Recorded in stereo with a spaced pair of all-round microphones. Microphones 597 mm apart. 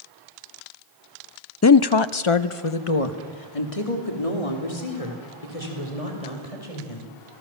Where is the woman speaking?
25° left (ahead or behind), 0.5 m; by 7.1 s 70° left (ahead or behind), 6 m.